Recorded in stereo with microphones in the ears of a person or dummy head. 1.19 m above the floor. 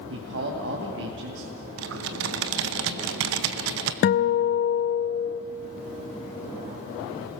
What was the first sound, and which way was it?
A man speaking, 65° right (ahead or behind).